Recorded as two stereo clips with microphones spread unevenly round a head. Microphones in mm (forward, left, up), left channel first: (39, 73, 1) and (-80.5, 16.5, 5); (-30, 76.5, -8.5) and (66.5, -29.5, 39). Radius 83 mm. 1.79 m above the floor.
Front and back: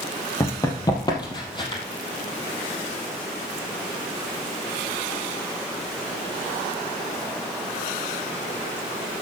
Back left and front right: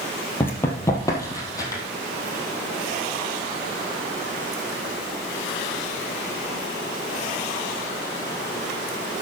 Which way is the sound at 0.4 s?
25° left.